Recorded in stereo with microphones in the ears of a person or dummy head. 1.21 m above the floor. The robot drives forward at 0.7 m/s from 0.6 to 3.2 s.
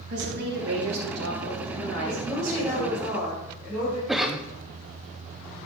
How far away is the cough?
About 0.8 m.